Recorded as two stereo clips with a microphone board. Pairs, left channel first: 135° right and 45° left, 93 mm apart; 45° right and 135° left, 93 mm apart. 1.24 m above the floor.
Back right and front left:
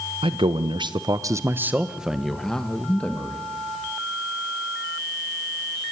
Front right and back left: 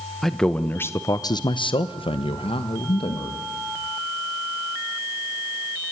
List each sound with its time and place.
0.2 s a man speaking: 45° left, 1.2 m; by 3.5 s 65° right, 2 m